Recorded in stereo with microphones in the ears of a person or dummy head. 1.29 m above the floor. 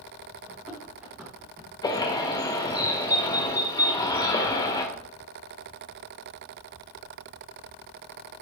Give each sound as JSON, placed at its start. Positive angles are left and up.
{"t": 0.5, "sound": "running footsteps", "side_deg": -10, "distance_m": 3.0}
{"t": 1.8, "sound": "a bird", "side_deg": 25, "distance_m": 1.6}